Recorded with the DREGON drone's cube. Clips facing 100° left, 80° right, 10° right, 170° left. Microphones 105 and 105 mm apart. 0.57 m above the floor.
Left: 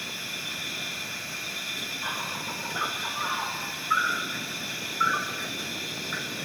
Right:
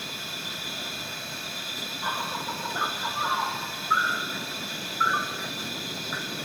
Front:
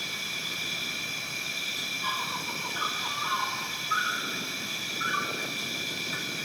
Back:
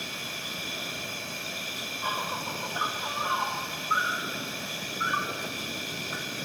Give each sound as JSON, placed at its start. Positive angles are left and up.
{"t": 0.0, "sound": "an insect", "azimuth_deg": -155, "distance_m": 3.0}